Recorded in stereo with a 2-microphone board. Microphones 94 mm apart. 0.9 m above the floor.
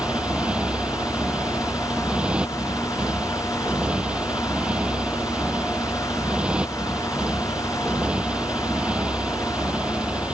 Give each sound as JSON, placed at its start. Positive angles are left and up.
{"t": 0.0, "sound": "a motorcycle", "side_deg": -10}